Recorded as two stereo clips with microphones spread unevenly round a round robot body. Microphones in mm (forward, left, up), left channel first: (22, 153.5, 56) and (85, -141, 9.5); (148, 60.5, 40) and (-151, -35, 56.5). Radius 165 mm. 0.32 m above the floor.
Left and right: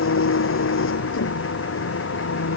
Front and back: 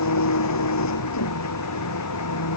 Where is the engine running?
55° left.